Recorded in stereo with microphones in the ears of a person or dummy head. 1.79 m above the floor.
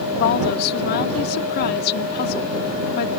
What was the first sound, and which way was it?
A woman speaking, 70° left (ahead or behind).